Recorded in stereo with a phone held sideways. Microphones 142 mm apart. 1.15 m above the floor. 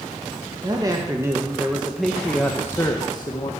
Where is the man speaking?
30° right (ahead or behind), 1.6 m; by 3.5 s 35° left (ahead or behind), 1.4 m.